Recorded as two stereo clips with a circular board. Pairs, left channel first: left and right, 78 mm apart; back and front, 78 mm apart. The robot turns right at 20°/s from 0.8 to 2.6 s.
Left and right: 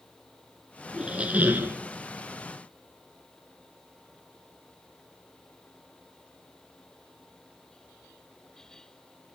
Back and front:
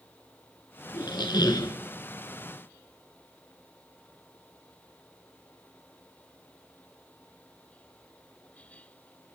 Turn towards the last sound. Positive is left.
turn(degrees=-135)